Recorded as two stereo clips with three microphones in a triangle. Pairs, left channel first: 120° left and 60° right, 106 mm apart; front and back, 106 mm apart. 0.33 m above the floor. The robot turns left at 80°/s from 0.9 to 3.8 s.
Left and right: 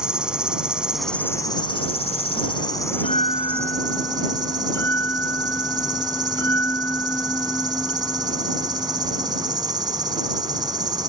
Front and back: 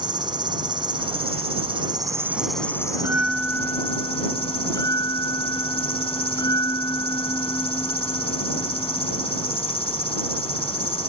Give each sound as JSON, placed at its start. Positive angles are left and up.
{"t": 0.0, "sound": "an insect", "azimuth_deg": -140}
{"t": 2.9, "sound": "a bell", "azimuth_deg": 120}